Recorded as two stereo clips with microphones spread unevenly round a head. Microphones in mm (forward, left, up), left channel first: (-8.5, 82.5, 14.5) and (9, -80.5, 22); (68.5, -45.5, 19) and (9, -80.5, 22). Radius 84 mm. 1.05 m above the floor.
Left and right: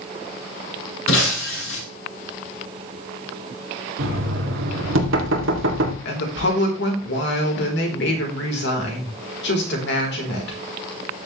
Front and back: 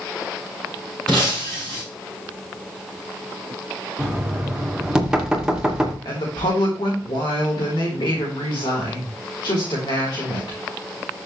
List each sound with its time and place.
1.1 s breaking glass: 115° left, 6.5 m
4.0 s knocking: 70° right, 2.5 m
6.0 s a woman speaking: 75° left, 3.5 m